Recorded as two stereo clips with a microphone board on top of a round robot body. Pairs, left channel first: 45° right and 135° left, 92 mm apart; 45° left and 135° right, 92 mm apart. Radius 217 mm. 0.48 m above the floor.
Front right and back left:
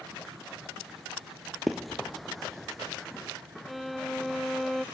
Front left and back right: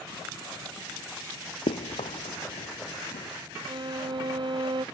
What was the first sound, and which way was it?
Running footsteps, 45° left.